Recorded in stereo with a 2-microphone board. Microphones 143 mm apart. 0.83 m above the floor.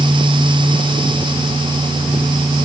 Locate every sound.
Only background noise.